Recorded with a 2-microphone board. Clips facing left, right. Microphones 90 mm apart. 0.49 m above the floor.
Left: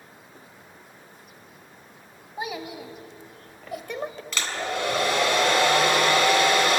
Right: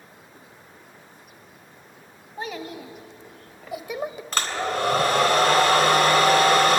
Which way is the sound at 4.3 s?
40° right (ahead or behind).